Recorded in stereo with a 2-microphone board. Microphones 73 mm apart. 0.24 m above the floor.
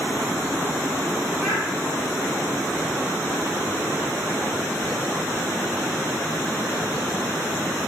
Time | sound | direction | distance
1.4 | a child speaking | 10° left (ahead or behind) | 1.9 m